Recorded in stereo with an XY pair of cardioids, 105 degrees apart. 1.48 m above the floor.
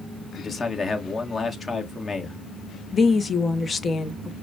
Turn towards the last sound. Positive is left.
turn(degrees=30)